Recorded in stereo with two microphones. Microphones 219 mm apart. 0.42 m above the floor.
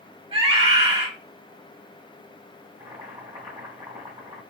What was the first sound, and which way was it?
A scream, 25° right (ahead or behind).